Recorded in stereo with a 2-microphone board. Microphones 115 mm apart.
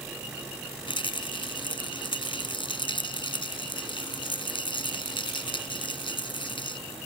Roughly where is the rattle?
Left.